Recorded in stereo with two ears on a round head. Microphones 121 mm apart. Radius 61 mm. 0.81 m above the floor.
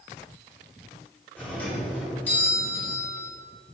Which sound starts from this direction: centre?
A doorbell, at 1.4 s.